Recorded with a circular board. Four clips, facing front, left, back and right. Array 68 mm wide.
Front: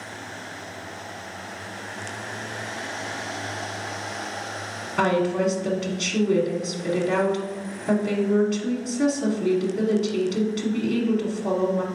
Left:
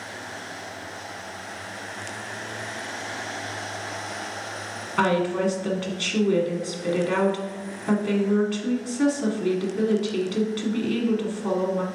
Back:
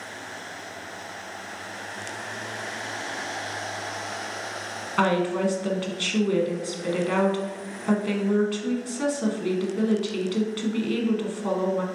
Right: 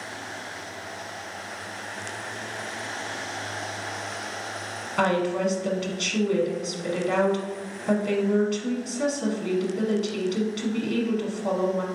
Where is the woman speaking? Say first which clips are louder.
Left 1 dB, front 1 dB; 150° left, 1.1 m.